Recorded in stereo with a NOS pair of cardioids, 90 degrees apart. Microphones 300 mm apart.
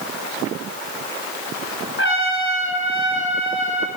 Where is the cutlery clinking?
No cutlery clinking in this recording.